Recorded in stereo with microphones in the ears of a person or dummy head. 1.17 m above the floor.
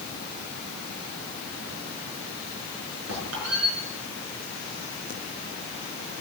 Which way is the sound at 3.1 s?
80° right.